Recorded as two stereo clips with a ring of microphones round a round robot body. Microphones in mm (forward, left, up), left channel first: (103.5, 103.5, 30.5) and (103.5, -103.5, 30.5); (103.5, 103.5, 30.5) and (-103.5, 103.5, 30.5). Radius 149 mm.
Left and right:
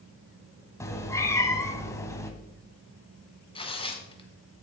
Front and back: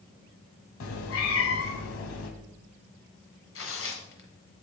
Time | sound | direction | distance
0.8 | a cat meowing | 10° left | 1.3 m
3.5 | tearing paper | 25° left | 1.7 m